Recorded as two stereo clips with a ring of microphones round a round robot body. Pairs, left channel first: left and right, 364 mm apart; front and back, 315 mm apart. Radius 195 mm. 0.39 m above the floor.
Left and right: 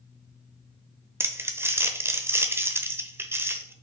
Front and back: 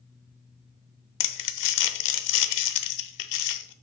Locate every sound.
1.2 s crumpling: 5° right, 0.8 m